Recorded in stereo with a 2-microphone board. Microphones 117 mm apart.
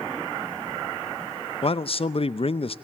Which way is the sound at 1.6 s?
50° left (ahead or behind).